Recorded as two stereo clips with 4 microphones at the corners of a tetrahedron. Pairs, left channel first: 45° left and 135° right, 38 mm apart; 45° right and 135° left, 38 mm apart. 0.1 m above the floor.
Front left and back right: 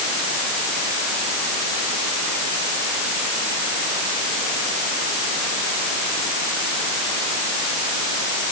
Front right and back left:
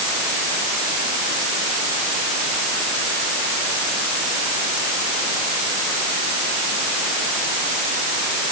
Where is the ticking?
I don't hear ticking.